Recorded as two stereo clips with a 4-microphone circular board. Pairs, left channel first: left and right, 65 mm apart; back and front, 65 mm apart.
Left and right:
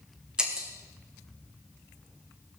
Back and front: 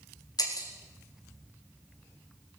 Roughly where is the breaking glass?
Behind.